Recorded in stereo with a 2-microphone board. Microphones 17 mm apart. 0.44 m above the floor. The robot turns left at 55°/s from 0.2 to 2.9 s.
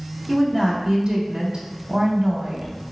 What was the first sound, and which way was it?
A woman speaking, 5° left.